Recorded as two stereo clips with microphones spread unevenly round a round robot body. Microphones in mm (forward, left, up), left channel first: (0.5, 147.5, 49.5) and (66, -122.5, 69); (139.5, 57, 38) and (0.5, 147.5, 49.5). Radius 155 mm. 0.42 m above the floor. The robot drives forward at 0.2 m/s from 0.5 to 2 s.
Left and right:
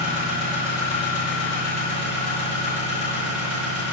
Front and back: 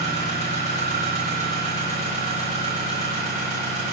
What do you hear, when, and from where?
0.0 s an engine running: 160° right, 2 m; by 3.9 s 165° right, 2.5 m